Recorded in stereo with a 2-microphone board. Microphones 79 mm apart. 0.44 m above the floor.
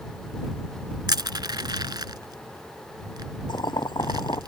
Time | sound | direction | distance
1.1 | crushing | 65° right (ahead or behind) | ?
3.5 | boiling | 70° left (ahead or behind) | ?